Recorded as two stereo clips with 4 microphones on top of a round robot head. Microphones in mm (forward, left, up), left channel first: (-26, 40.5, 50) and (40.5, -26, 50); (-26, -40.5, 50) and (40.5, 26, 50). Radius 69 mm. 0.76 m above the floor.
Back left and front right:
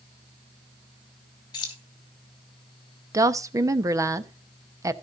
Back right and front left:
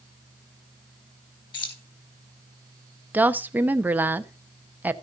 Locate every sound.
1.5 s keys jangling: 175° right, 3 m
3.1 s a woman speaking: 15° right, 1.0 m